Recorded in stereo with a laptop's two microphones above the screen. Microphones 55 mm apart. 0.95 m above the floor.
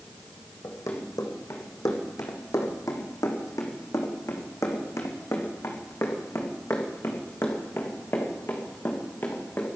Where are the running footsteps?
70° left (ahead or behind), 3.5 m; by 9.7 s 40° left (ahead or behind), 5 m.